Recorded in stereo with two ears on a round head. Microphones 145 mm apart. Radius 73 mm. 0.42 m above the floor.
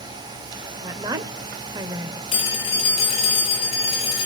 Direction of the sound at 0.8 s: 25° right (ahead or behind).